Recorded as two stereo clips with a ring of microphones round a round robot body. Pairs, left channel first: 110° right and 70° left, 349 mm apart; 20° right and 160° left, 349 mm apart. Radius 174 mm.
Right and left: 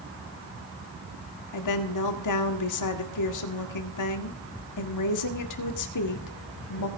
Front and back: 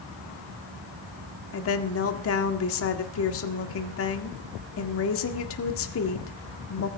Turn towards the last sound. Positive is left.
turn(degrees=-75)